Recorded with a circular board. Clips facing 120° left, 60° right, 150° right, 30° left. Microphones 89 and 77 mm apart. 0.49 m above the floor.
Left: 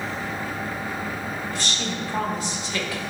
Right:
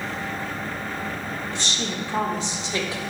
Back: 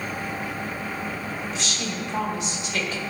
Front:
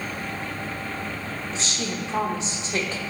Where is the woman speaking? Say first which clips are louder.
Even, even; 10° right, 1.2 m.